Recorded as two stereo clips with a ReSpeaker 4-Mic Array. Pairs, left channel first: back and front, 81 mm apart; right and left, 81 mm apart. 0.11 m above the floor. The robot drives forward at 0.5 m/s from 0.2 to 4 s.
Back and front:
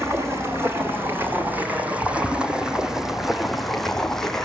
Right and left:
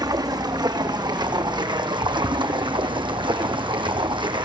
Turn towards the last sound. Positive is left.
turn(degrees=95)